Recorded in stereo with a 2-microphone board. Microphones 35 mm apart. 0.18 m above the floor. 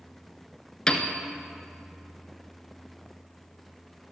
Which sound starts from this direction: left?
A piano, at 0.9 s.